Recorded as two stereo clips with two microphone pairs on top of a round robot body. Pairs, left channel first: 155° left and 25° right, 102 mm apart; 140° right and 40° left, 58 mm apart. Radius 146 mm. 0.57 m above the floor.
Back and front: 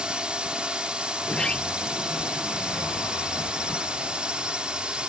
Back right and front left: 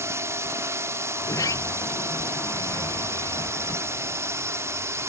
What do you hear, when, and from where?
0.0 s a drone: 65° left
1.2 s a sliding door: 125° right